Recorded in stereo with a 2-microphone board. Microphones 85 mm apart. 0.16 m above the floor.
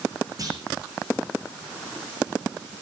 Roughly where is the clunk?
Right.